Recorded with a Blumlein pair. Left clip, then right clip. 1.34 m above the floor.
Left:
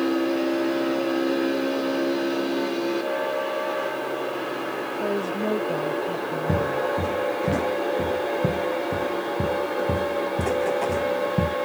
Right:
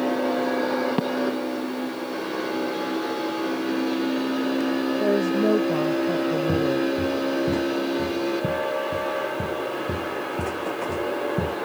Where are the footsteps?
15° left.